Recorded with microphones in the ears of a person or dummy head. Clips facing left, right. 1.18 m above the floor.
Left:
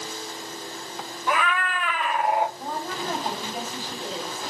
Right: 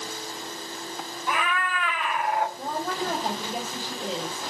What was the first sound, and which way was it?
A cat meowing, 60° left (ahead or behind).